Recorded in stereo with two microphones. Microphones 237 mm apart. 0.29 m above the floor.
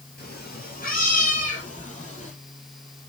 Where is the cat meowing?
40° left (ahead or behind), 3.5 m; by 2.3 s 30° left (ahead or behind), 5 m.